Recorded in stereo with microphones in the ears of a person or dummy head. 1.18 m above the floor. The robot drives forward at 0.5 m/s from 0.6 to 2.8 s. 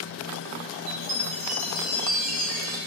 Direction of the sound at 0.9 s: 40° right (ahead or behind).